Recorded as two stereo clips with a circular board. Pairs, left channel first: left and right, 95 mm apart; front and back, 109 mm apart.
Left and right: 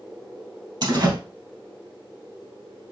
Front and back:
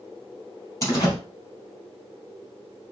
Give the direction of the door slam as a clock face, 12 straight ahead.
2 o'clock.